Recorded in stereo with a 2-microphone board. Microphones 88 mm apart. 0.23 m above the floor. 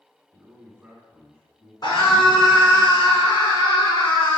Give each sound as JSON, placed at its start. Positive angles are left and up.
{"t": 0.3, "sound": "a man speaking", "side_deg": -10, "distance_m": 1.9}
{"t": 1.8, "sound": "a scream", "side_deg": 45, "distance_m": 3.0}